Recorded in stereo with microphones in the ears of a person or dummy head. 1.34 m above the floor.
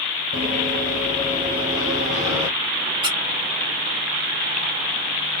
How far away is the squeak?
About 0.7 m.